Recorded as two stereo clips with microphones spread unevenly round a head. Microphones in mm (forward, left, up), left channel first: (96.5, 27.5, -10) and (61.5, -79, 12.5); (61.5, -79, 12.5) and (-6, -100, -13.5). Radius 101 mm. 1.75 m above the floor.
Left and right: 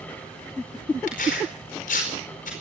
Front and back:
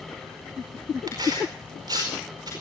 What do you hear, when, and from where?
1.1 s tearing paper: 125° left, 4.5 m